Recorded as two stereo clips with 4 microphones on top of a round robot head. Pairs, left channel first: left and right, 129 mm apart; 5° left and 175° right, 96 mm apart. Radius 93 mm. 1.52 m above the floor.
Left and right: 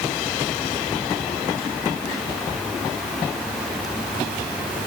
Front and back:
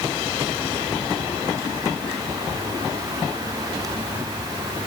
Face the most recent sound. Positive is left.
No sound to turn to.